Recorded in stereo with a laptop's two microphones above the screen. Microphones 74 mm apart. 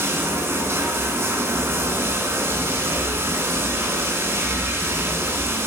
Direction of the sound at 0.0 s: 35° right (ahead or behind).